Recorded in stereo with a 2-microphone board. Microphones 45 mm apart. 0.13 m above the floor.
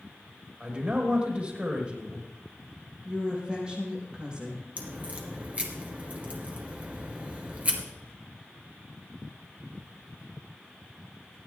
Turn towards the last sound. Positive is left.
turn(degrees=-30)  # may be behind; listen again after turning